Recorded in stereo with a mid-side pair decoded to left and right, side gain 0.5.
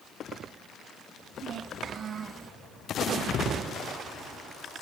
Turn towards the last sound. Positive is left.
turn(degrees=-30)